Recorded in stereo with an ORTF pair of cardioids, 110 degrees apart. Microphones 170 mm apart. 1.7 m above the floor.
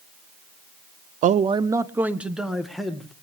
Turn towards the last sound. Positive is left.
turn(degrees=5)